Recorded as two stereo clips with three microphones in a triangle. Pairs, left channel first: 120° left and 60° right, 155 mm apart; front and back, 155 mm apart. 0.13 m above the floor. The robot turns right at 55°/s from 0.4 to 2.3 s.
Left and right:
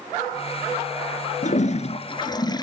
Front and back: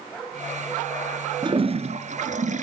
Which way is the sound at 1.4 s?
125° left.